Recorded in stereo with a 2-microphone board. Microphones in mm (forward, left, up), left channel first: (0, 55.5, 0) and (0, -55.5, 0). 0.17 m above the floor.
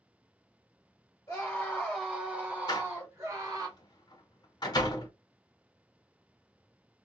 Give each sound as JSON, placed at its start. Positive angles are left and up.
{"t": 1.3, "sound": "a scream", "side_deg": 25, "distance_m": 1.4}
{"t": 2.7, "sound": "a door slam", "side_deg": 40, "distance_m": 1.0}